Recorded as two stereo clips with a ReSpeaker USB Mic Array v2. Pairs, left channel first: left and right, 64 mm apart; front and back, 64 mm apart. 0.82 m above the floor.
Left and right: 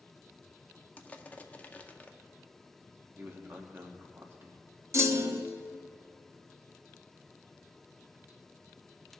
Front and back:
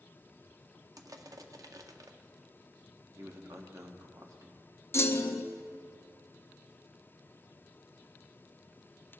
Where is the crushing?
155° left, 0.6 m.